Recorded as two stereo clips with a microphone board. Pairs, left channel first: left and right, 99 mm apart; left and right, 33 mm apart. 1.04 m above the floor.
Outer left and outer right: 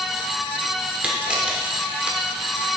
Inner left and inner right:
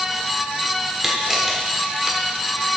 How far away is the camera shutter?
About 1.2 m.